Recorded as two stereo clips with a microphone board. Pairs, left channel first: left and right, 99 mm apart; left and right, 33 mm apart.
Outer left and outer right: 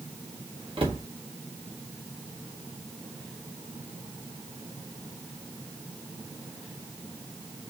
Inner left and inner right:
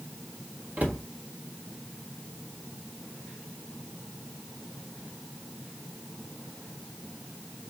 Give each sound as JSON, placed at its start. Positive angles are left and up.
{"t": 0.8, "sound": "a cupboard door", "side_deg": -60, "distance_m": 1.3}